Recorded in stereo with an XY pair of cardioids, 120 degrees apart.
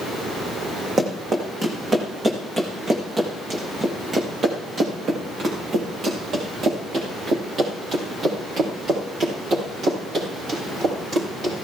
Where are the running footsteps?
25° right, 4 m; by 11.6 s 50° right, 9 m.